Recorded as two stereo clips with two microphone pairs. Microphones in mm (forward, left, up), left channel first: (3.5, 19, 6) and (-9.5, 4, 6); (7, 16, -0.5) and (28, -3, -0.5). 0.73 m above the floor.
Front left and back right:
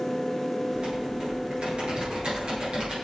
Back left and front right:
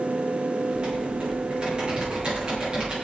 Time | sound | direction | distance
0.7 | typing on a keyboard | 95° right | 7 m